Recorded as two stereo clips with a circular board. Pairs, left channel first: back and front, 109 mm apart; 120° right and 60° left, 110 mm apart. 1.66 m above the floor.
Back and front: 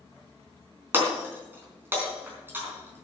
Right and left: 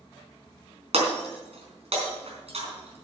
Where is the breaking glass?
70° left, 3.5 m.